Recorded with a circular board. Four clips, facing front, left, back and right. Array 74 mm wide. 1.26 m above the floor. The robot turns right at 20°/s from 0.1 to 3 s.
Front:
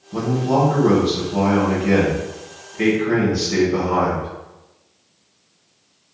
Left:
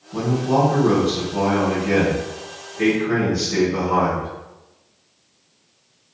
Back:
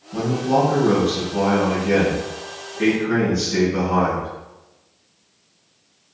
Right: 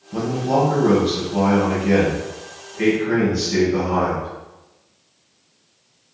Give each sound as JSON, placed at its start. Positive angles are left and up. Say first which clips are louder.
{"t": 0.1, "sound": "a man speaking", "louder": "even, even", "azimuth_deg": -65, "distance_m": 1.0}